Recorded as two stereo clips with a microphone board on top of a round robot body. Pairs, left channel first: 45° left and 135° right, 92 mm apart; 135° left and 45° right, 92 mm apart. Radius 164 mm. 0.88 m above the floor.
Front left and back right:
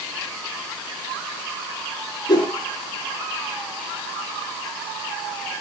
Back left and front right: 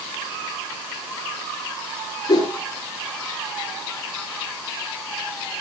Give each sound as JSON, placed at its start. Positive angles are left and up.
{"t": 2.3, "sound": "a whoosh", "azimuth_deg": 100, "distance_m": 6.0}